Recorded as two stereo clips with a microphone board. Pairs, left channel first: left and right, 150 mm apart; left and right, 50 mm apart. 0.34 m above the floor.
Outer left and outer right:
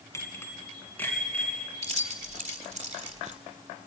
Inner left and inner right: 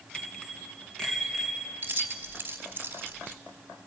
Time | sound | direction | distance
0.1 | a bicycle bell | 20° left (ahead or behind) | 2.5 m
1.8 | keys jangling | 45° right (ahead or behind) | 1.5 m